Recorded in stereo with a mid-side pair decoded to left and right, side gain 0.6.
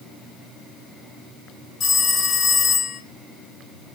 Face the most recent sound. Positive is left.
turn(degrees=50)